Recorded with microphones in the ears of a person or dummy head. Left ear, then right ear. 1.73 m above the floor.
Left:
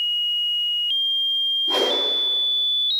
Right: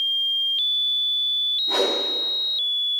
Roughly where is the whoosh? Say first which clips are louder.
Left 1 dB; centre.